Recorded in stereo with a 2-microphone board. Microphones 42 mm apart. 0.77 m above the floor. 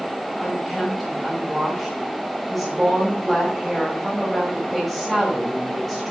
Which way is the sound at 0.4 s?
Centre (ahead or behind).